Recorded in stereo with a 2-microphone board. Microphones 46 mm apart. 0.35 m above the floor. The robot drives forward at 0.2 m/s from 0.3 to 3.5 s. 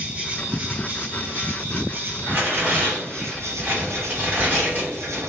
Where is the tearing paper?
40° right (ahead or behind), 1.9 m.